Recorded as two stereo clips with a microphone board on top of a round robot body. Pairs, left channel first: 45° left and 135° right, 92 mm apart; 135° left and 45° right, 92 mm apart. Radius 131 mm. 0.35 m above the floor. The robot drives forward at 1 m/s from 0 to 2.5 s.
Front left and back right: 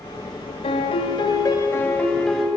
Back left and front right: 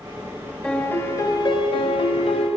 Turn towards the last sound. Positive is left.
turn(degrees=135)